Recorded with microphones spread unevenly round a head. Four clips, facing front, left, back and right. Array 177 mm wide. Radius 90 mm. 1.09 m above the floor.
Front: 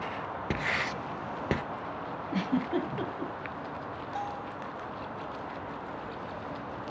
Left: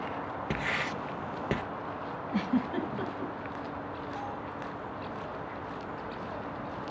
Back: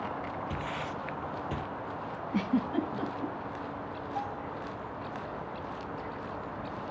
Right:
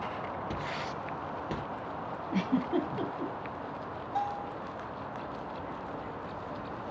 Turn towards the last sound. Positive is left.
turn(degrees=-65)